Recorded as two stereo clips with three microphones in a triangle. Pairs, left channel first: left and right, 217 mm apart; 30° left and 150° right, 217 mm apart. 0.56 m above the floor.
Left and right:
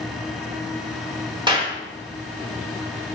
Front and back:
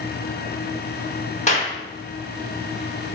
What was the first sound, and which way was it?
A clap, 25° right.